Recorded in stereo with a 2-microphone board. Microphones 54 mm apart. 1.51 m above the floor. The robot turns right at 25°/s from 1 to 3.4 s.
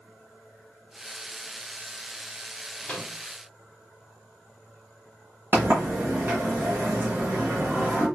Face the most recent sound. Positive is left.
turn(degrees=-40)  # may be behind; listen again after turning